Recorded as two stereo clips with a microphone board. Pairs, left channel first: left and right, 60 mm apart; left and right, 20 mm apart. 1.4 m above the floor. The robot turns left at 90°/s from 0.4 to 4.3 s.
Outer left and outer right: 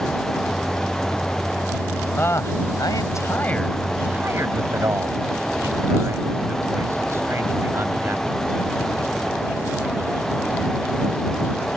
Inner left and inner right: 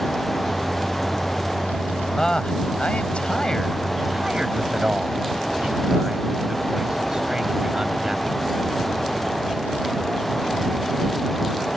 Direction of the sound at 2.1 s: 30° left (ahead or behind).